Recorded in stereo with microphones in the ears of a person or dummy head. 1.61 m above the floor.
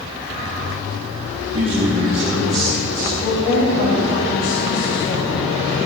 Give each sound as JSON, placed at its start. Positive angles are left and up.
{"t": 1.5, "sound": "a man speaking", "side_deg": -45, "distance_m": 1.0}
{"t": 3.2, "sound": "a woman speaking", "side_deg": 70, "distance_m": 1.6}